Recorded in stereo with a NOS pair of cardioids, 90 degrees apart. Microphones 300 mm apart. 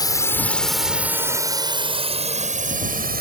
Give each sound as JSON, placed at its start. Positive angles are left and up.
{"t": 0.0, "sound": "a drone", "azimuth_deg": 10}